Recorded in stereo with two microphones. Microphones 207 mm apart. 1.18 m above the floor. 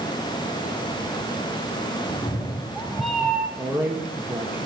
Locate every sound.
2.1 s a cat meowing: 25° left (ahead or behind), 1.4 m; by 3.5 s 10° right (ahead or behind), 2.0 m
3.6 s a man speaking: 5° right (ahead or behind), 1.8 m